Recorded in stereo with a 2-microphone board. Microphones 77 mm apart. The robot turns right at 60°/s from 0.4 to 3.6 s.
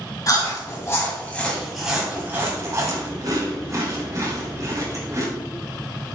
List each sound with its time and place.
0.3 s chewing: 45° left (ahead or behind), 1.9 m; by 5.3 s 45° right (ahead or behind), 1.9 m